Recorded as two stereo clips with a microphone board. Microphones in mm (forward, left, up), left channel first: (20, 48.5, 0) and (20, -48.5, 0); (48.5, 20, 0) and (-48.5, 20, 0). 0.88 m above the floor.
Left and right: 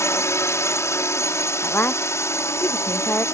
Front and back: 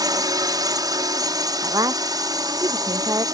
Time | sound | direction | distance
0.0 | a drone | 145° left | ?
1.6 | a woman speaking | 150° left | ?